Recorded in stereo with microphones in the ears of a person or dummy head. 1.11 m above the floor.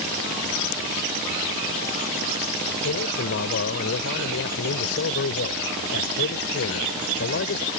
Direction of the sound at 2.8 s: 60° left (ahead or behind).